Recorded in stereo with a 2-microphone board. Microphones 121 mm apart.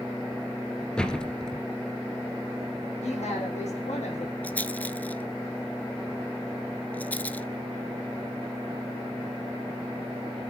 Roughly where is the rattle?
Centre.